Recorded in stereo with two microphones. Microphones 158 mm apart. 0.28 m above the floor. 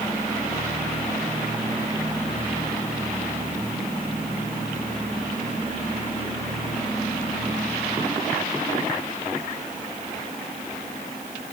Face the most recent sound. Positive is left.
No sound to turn to.